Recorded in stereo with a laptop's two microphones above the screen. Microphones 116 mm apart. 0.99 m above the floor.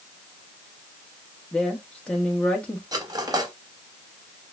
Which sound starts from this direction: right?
Cutlery clinking, at 2.9 s.